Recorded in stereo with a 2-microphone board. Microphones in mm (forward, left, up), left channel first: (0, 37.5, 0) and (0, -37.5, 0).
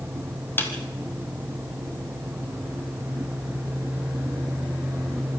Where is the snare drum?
30° left (ahead or behind), 2.5 m.